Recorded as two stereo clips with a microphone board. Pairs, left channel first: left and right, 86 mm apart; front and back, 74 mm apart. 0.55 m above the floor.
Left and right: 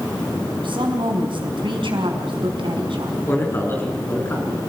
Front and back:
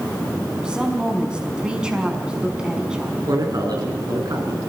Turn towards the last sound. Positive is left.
turn(degrees=150)